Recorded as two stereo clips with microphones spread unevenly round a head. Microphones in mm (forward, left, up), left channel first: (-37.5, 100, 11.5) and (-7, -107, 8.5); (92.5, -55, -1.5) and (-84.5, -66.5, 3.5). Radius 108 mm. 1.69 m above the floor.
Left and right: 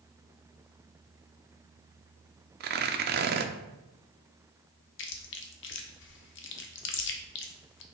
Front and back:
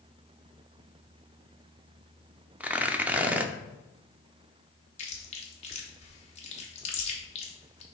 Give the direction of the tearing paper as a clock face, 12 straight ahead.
3 o'clock.